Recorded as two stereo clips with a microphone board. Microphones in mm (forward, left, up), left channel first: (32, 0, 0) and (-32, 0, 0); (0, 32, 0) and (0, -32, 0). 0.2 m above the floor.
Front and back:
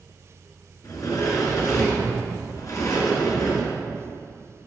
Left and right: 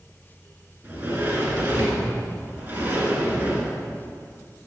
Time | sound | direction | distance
0.8 | a sliding door | 30° right | 1.9 m